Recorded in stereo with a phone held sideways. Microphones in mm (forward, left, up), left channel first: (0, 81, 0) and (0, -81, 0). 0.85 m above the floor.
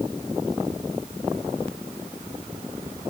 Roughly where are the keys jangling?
No keys jangling in this recording.